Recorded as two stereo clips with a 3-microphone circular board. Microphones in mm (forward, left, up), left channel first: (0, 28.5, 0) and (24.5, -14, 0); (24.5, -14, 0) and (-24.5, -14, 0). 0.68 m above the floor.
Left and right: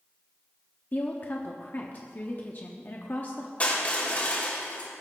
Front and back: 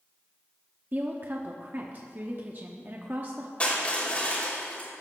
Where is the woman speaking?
155° left, 1.2 m.